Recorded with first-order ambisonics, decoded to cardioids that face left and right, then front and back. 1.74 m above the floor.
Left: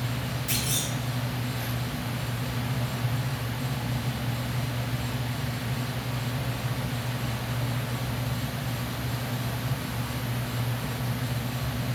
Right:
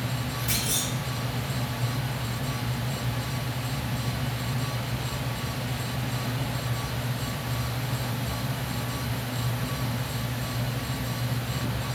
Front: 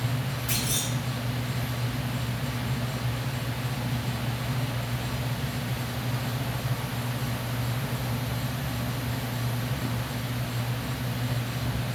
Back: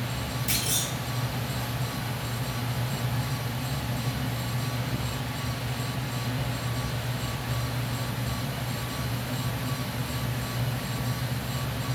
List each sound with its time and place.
0.5 s a clunk: 165° right, 3 m